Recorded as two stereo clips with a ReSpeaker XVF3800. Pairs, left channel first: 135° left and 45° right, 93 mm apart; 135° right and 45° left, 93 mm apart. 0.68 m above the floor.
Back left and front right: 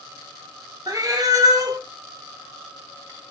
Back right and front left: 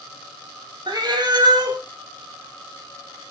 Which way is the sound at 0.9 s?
5° left.